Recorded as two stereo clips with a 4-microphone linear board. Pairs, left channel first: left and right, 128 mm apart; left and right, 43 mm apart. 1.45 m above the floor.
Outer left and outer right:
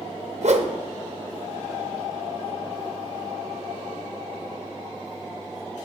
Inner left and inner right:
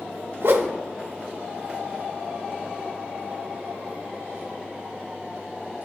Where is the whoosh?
60° right (ahead or behind), 0.6 m.